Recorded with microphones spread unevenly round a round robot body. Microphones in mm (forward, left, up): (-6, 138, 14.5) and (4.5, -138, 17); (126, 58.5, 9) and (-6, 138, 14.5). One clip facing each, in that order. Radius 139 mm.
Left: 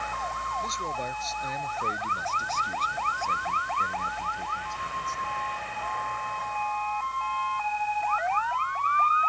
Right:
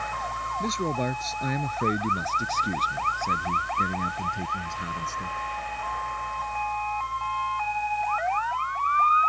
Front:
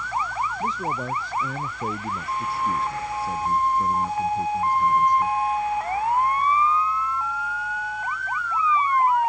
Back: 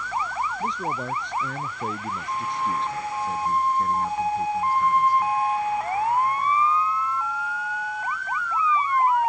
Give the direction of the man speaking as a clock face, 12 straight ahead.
4 o'clock.